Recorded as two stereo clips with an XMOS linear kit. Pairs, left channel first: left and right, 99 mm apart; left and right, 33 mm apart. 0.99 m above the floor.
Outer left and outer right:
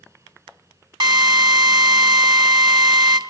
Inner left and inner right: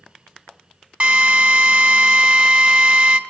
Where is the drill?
50° right (ahead or behind), 1.6 m.